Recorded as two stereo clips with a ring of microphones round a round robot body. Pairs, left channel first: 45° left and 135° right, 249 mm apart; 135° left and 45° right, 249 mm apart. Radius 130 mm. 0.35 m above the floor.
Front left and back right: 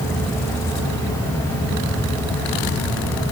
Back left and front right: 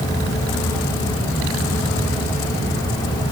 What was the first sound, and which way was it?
Only background noise.